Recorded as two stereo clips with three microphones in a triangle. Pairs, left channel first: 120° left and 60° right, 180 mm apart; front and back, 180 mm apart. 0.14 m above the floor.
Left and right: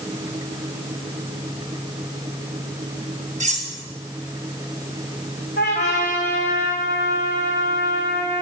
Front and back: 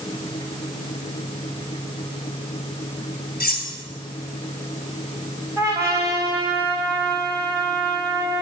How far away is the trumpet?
About 4 m.